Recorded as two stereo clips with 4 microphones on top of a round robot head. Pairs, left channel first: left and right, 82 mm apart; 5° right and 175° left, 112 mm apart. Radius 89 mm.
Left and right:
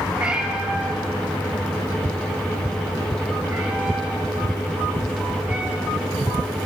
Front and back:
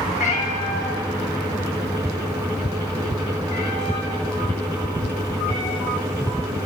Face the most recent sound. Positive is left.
turn(degrees=-30)